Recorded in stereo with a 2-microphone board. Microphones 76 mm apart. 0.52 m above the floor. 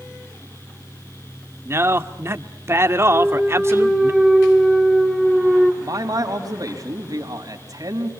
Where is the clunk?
Centre (ahead or behind), 2 m.